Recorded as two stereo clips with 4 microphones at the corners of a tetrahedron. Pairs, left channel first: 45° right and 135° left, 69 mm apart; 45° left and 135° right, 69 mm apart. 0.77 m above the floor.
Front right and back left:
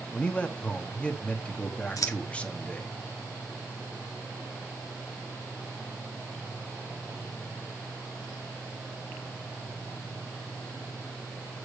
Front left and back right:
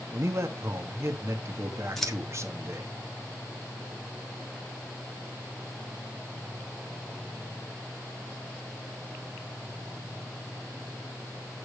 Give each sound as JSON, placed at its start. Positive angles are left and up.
{"t": 0.1, "sound": "a man speaking", "azimuth_deg": -110, "distance_m": 1.5}
{"t": 2.0, "sound": "scissors", "azimuth_deg": -40, "distance_m": 1.7}